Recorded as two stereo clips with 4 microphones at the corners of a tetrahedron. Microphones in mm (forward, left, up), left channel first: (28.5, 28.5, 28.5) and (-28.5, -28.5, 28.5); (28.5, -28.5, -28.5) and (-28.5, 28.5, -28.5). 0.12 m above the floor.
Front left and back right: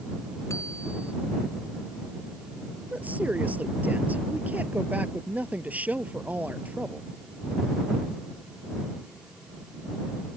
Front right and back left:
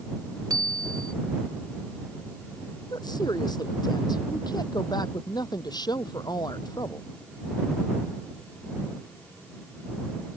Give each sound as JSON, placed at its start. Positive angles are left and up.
{"t": 0.5, "sound": "a bicycle bell", "azimuth_deg": 95}
{"t": 2.9, "sound": "a woman speaking", "azimuth_deg": -65}